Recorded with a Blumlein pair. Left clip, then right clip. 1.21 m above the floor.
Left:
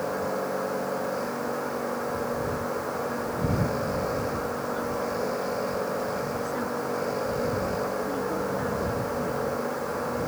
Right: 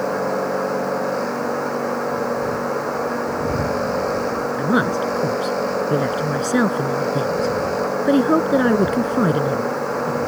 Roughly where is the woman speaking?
Ahead right.